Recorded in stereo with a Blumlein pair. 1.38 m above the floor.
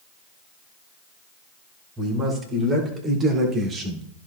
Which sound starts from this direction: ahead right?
A man speaking, at 2.0 s.